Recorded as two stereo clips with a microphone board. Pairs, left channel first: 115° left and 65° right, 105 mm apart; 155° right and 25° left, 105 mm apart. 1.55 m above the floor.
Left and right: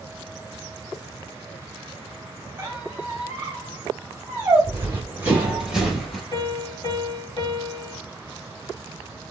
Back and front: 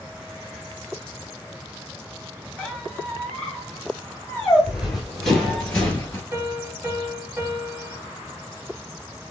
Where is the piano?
85° left, 1.3 m.